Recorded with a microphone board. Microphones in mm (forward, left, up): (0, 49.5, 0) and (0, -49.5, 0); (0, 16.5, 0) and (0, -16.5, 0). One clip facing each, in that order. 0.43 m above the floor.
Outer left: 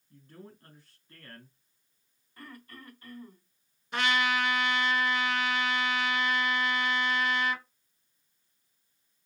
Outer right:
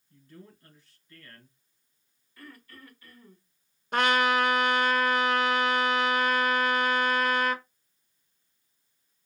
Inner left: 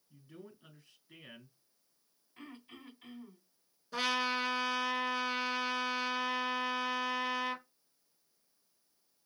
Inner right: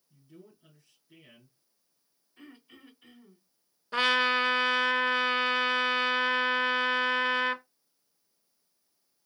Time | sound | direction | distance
0.1 | a man speaking | 45° left (ahead or behind) | 2.5 m
2.4 | throat clearing | 45° left (ahead or behind) | 2.5 m
3.9 | a trumpet | 50° right (ahead or behind) | 0.7 m